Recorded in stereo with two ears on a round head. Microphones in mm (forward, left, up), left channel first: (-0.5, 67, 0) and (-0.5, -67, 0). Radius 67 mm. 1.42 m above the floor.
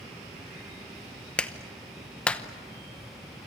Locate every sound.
1.4 s a clap: 10° left (ahead or behind), 1.0 m